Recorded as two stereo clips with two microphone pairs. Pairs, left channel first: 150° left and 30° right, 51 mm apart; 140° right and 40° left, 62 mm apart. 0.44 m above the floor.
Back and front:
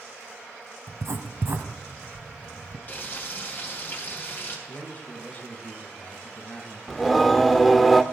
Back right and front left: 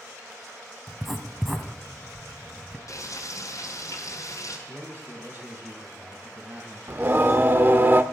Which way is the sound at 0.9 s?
45° right.